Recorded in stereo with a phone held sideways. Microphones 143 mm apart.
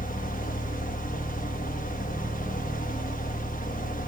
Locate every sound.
0.0 s a fan: 70° left (ahead or behind), 1.1 m